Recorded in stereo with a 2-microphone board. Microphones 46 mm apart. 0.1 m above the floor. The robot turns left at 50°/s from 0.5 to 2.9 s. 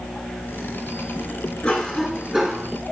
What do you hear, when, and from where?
1.6 s a cough: 35° left, 8 m; by 2.7 s 20° right, 8 m